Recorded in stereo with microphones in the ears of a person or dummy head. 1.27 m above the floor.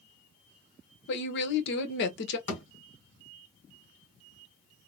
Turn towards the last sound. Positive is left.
turn(degrees=60)  # may be behind; listen again after turning